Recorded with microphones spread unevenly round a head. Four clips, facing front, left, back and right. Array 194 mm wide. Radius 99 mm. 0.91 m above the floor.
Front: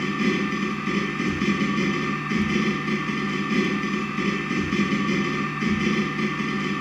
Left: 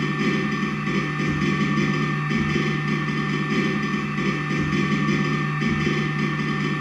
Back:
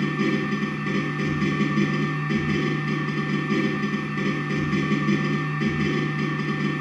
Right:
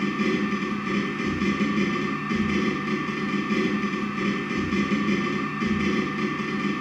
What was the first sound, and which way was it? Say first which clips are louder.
A machine running: left 1 dB, even; 140° right.